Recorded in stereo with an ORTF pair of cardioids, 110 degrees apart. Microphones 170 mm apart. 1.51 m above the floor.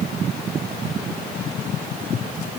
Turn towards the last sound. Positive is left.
No sound to turn to.